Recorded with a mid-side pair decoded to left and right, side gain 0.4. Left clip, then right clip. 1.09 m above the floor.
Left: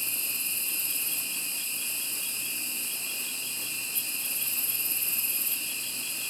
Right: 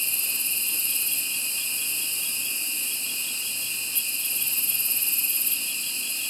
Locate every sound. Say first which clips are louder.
0.0 s an insect: right 4 dB; 40° right, 0.9 m